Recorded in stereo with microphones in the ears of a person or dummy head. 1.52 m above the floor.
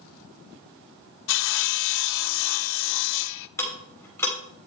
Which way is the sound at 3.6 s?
10° left (ahead or behind).